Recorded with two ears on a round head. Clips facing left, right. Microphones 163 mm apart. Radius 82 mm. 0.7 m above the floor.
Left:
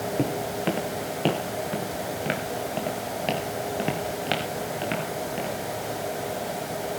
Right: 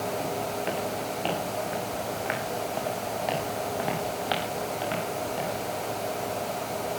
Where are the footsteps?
65° left (ahead or behind), 3 m; by 5.5 s 25° left (ahead or behind), 7.5 m.